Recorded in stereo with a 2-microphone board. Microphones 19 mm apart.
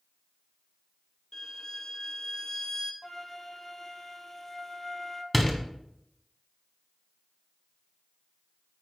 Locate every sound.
1.3 s a violin: 35° left (ahead or behind), 0.8 m
3.0 s a flute: 20° left (ahead or behind), 0.8 m
5.3 s a door slam: 10° left (ahead or behind), 1.3 m